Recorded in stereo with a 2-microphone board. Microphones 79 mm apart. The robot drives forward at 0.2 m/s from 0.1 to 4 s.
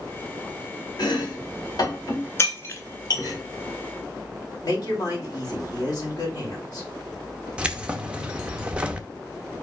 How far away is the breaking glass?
About 1.3 m.